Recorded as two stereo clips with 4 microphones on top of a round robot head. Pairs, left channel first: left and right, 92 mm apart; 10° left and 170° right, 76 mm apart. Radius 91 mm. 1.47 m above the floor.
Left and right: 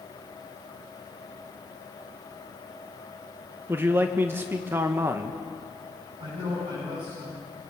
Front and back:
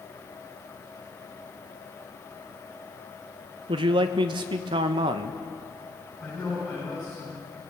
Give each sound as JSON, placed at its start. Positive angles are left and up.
{"t": 3.7, "sound": "a man speaking", "azimuth_deg": -160, "distance_m": 1.2}
{"t": 6.2, "sound": "a man speaking", "azimuth_deg": -85, "distance_m": 9.0}